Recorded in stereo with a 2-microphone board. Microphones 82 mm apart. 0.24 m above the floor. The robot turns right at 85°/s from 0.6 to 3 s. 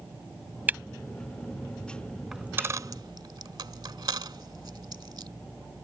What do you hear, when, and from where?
0.7 s a camera shutter: 20° right (ahead or behind); by 0.8 s 25° right (ahead or behind)
2.3 s a dropped coin: 5° right (ahead or behind); by 5.3 s 60° right (ahead or behind)